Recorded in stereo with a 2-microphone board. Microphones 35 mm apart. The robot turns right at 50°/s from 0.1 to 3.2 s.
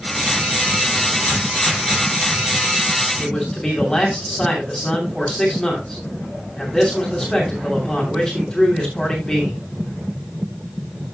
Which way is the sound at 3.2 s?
25° left (ahead or behind).